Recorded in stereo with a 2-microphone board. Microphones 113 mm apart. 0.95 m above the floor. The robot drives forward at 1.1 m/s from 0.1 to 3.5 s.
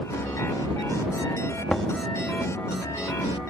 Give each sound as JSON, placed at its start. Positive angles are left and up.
{"t": 1.7, "sound": "knocking", "side_deg": 5}